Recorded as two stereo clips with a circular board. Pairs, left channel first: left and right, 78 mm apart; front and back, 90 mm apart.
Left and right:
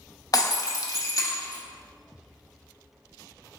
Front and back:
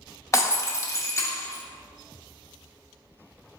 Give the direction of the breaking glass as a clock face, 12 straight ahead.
10 o'clock.